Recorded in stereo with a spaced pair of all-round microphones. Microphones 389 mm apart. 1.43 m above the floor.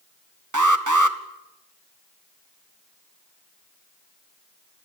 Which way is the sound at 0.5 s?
50° right (ahead or behind).